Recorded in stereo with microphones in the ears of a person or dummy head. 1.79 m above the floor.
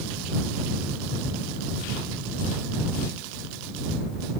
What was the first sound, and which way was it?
Only background noise.